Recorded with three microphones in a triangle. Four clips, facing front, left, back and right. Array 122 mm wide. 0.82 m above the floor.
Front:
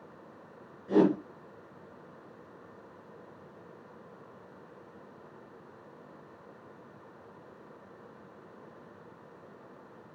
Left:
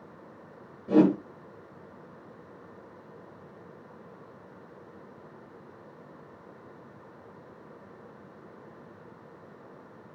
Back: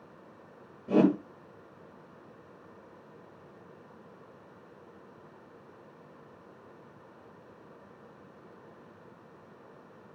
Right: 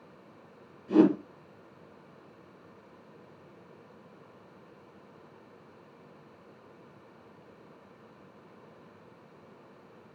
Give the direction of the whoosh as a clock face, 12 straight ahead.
8 o'clock.